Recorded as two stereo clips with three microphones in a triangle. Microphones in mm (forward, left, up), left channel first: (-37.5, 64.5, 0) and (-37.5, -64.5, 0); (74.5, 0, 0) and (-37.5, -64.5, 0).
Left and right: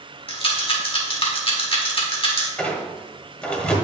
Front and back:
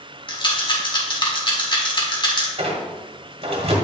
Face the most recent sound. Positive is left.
turn(degrees=170)